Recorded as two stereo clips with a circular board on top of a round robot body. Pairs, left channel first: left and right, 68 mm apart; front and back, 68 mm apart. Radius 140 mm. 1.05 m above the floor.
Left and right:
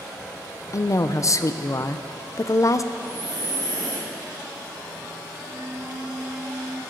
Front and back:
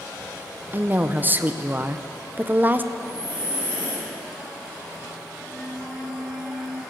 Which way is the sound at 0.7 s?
120° left.